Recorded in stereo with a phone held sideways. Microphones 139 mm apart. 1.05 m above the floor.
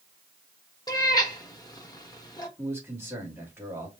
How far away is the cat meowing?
About 0.9 m.